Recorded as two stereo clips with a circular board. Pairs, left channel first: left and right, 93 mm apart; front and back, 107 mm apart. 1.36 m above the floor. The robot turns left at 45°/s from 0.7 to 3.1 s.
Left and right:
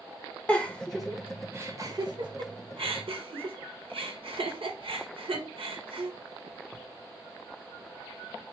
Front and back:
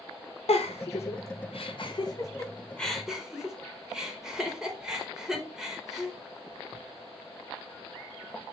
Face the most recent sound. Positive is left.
turn(degrees=-95)